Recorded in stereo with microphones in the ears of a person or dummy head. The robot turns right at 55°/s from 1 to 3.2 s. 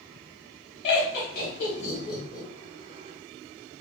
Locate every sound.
0.8 s laughter: 35° left (ahead or behind), 1.3 m; by 2.5 s 60° left (ahead or behind), 1.3 m